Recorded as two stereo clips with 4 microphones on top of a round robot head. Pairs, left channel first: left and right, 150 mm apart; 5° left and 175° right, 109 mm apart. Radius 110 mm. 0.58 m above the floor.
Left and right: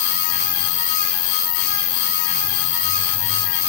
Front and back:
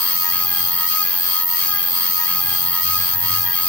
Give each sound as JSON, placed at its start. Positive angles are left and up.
{"t": 0.0, "sound": "an insect", "azimuth_deg": 120}